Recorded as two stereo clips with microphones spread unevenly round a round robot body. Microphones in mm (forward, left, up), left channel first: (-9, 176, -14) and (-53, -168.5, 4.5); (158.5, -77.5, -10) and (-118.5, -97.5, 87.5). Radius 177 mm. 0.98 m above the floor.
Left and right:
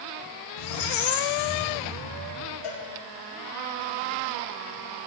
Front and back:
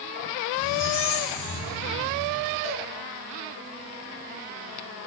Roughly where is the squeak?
Ahead left.